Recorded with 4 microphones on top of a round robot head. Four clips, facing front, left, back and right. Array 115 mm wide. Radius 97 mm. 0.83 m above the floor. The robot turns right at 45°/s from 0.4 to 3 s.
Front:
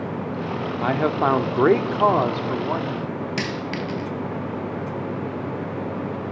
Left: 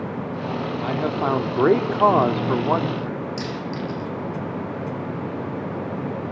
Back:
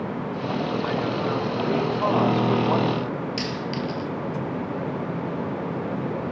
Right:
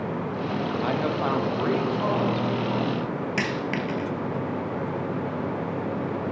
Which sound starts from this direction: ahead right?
A dropped coin, at 3.4 s.